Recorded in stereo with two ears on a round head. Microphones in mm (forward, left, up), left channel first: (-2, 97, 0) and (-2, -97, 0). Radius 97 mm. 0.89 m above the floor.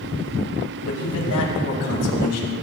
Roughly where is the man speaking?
Left.